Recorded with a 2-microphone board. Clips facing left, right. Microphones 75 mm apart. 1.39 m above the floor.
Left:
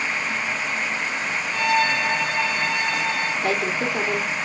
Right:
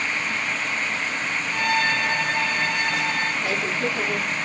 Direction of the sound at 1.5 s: 40° right (ahead or behind).